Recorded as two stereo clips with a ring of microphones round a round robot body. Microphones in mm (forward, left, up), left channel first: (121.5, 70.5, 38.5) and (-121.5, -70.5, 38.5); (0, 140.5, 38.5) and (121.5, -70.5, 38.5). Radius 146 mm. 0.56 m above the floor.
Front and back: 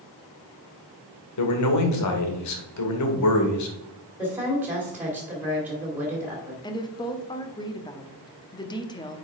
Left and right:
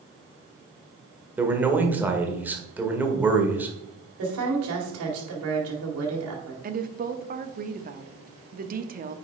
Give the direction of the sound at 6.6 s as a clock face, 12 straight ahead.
1 o'clock.